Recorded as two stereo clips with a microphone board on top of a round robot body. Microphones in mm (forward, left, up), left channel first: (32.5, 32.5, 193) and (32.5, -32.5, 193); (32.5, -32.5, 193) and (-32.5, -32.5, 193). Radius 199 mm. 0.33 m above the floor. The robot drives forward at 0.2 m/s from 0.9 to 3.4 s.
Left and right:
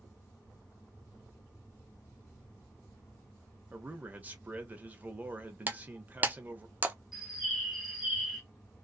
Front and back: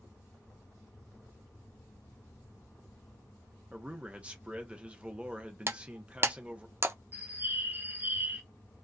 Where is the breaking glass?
145° right, 0.7 m.